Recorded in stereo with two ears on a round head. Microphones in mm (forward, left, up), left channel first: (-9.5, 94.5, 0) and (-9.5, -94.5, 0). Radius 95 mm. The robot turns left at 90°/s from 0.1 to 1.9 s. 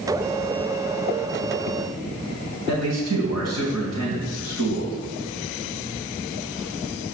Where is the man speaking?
80° right, 3.5 m.